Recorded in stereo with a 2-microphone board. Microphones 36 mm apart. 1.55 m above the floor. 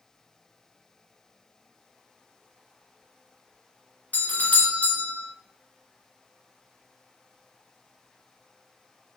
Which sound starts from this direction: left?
A doorbell, at 4.1 s.